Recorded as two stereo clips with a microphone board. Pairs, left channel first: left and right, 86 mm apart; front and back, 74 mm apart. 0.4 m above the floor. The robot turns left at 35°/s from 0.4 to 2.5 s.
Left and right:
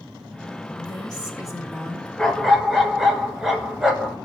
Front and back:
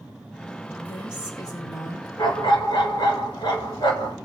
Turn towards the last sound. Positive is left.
turn(degrees=-5)